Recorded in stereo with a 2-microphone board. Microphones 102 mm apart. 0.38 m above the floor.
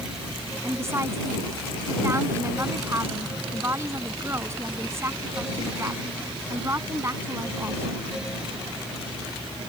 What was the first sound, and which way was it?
A woman speaking, 25° right (ahead or behind).